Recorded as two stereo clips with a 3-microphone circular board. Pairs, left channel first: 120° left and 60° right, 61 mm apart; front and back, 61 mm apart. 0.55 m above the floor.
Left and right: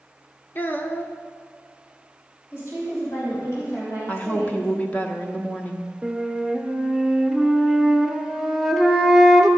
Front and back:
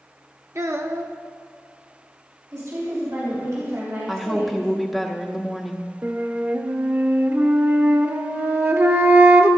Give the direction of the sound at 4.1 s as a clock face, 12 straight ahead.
9 o'clock.